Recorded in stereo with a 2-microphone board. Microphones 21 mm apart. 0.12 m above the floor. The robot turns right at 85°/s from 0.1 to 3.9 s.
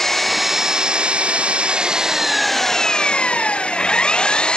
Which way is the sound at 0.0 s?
165° left.